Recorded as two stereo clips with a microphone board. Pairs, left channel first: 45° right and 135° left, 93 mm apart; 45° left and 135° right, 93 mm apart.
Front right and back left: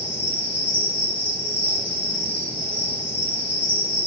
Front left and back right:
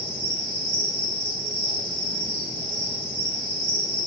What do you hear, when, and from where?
0.0 s an insect: 65° left, 1.7 m